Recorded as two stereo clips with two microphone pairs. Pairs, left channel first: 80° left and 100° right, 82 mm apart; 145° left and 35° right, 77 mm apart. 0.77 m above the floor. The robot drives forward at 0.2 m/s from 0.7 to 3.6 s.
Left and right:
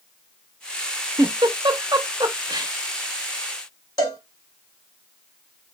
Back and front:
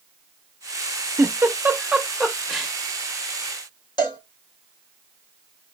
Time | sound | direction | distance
1.2 | a giggle | 90° right | 0.5 m
4.0 | a cowbell | 125° left | 1.8 m